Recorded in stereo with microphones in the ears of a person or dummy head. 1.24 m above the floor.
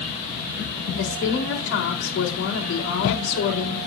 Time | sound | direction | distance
0.9 | a woman speaking | 75° left (ahead or behind) | 4 m